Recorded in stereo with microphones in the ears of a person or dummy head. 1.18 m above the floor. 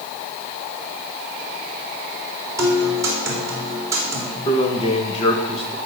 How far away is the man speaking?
About 1.7 m.